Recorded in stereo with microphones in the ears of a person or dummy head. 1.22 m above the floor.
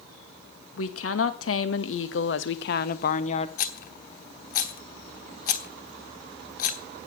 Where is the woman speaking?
75° left (ahead or behind), 2 m; by 3.5 s 35° left (ahead or behind), 1.1 m.